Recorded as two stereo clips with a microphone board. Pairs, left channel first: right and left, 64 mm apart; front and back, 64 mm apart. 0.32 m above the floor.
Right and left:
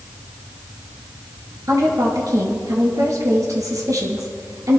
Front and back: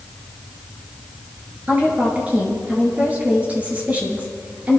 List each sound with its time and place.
1.7 s a woman speaking: 115° left, 5.5 m